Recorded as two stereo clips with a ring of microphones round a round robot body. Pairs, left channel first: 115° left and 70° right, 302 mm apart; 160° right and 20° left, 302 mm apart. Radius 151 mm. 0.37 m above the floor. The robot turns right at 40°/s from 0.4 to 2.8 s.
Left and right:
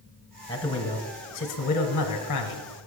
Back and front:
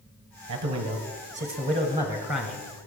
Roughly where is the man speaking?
Ahead left.